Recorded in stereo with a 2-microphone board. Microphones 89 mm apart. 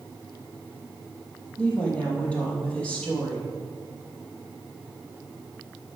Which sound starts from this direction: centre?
A woman speaking, at 1.6 s.